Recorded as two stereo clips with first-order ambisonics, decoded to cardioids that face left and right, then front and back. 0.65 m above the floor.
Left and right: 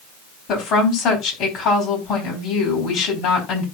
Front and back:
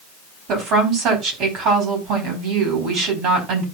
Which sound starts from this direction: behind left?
A woman speaking, at 0.5 s.